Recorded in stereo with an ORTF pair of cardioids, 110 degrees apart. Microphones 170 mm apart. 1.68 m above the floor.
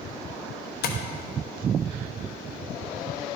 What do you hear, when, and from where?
0.8 s tapping: 70° left, 1.1 m